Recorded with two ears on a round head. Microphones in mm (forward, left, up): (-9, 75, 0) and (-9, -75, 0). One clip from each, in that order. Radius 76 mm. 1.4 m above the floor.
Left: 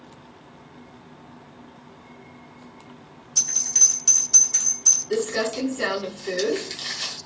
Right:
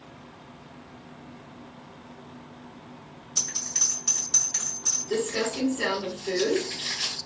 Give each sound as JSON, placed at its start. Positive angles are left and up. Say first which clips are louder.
{"t": 3.4, "sound": "a bell", "louder": "left 7 dB", "side_deg": 25, "distance_m": 1.7}
{"t": 5.1, "sound": "crumpling", "louder": "left 3 dB", "side_deg": 45, "distance_m": 1.4}